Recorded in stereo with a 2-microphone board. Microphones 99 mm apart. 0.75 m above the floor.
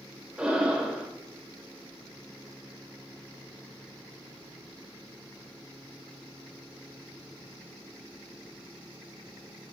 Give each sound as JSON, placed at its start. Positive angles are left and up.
{"t": 0.4, "sound": "breathing", "side_deg": -10, "distance_m": 0.6}